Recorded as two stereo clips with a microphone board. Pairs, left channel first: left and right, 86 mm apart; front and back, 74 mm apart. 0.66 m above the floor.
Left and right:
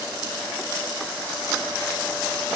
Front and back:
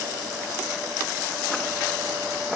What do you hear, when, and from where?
Only background noise.